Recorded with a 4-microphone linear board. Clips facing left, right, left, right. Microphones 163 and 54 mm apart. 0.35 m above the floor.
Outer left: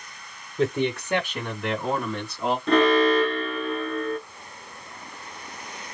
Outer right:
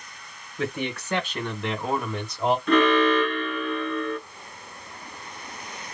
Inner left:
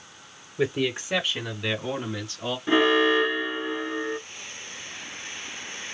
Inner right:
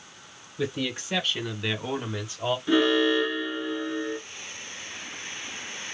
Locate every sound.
0.6 s a man speaking: 30° left (ahead or behind), 1.4 m; by 2.6 s 25° right (ahead or behind), 1.4 m
2.7 s an alarm: 35° left (ahead or behind), 1.1 m